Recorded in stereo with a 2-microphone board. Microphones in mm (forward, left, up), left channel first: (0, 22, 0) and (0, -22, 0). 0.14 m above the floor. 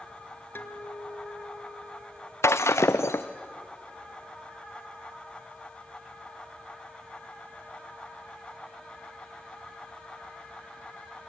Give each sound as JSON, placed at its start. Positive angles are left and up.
{"t": 0.6, "sound": "a guitar", "side_deg": 50, "distance_m": 1.5}
{"t": 2.4, "sound": "breaking glass", "side_deg": 85, "distance_m": 0.8}